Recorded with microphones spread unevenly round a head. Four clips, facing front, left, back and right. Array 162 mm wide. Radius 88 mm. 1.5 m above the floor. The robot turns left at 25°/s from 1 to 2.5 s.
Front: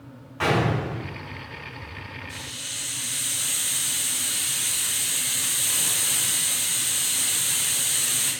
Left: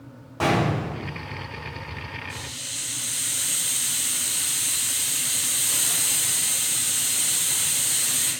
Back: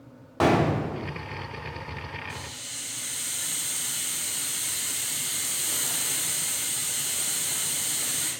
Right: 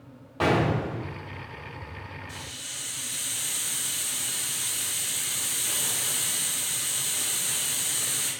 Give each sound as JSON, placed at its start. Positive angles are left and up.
{"t": 0.4, "sound": "a gunshot", "azimuth_deg": -170, "distance_m": 1.0}
{"t": 2.3, "sound": "a hiss", "azimuth_deg": -115, "distance_m": 2.0}